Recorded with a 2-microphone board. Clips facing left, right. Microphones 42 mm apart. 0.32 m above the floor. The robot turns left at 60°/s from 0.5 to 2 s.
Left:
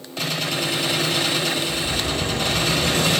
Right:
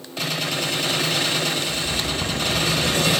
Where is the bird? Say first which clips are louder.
Left 1 dB; 80° left, 4 m.